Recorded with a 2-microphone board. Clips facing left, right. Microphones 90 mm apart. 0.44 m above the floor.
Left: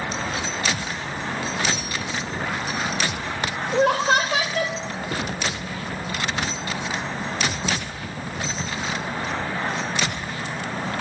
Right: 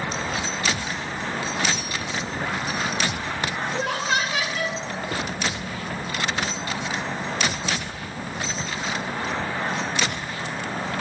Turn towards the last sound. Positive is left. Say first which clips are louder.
# left 9 dB
turn(degrees=50)  # may be behind; listen again after turning